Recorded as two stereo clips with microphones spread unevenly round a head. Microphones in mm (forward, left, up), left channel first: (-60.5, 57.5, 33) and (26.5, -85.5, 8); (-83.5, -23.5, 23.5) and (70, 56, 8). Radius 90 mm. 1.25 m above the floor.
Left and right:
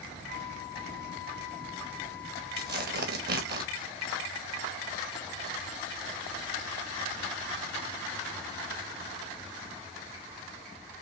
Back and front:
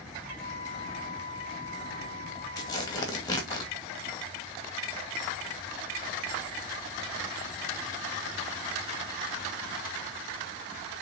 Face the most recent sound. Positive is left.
turn(degrees=-80)